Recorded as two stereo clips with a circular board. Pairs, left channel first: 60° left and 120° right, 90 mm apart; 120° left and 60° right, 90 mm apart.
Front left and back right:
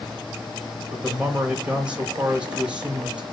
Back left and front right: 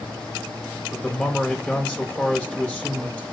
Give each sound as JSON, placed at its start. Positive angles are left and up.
{"t": 0.9, "sound": "a man speaking", "azimuth_deg": 175, "distance_m": 1.2}